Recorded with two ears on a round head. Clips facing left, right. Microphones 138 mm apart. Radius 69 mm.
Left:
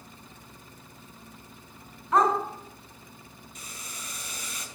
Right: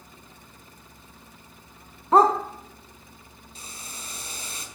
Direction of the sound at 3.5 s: 30° right (ahead or behind).